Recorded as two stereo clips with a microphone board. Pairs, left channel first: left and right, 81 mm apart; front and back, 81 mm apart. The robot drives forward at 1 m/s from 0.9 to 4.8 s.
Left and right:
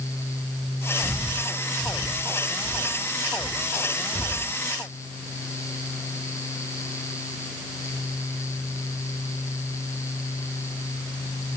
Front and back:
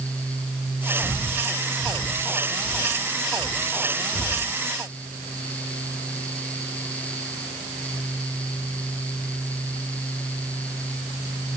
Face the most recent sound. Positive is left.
turn(degrees=85)